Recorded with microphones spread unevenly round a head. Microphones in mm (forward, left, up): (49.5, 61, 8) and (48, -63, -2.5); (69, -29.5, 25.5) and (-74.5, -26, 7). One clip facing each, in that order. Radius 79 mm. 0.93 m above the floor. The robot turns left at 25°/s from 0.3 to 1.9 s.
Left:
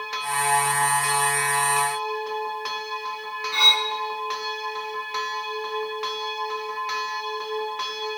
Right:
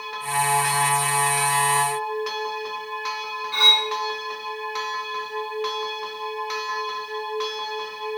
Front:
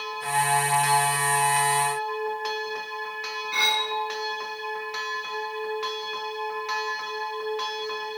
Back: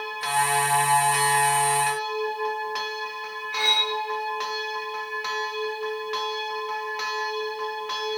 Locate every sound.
3.5 s cutlery clinking: 5° left, 5 m